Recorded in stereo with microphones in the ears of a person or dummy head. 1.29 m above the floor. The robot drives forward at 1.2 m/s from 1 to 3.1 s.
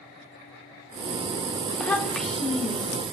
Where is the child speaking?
10° left (ahead or behind), 0.7 m; by 3.0 s 5° left (ahead or behind), 2 m.